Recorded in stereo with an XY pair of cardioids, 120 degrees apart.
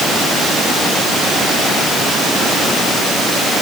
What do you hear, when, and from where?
Only background noise.